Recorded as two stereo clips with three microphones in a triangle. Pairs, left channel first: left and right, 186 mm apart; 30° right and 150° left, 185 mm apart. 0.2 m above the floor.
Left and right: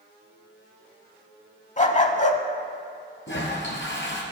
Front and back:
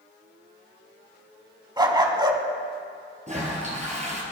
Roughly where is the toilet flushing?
Left.